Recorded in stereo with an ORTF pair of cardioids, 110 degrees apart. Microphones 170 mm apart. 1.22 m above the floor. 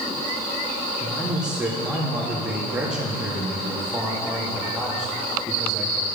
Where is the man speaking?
5° right, 2.5 m.